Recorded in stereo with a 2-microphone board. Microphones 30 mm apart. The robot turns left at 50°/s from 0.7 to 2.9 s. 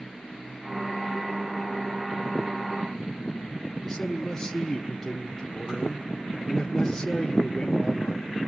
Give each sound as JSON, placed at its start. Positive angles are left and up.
{"t": 3.8, "sound": "a man speaking", "side_deg": 10, "distance_m": 1.6}